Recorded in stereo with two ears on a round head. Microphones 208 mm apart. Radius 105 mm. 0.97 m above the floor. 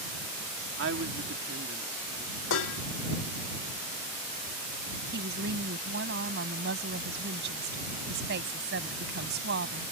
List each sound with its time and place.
0.8 s a woman speaking: 55° right (ahead or behind)
2.5 s dishes clattering: 65° left (ahead or behind)
5.1 s a woman speaking: 50° right (ahead or behind)